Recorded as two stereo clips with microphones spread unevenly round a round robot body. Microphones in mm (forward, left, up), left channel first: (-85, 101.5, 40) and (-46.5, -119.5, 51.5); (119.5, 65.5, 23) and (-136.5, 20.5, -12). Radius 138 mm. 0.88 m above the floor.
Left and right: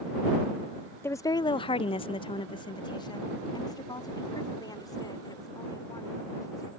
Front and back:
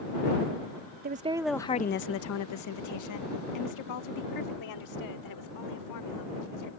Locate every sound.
1.0 s a woman speaking: 175° left; by 6.7 s 20° left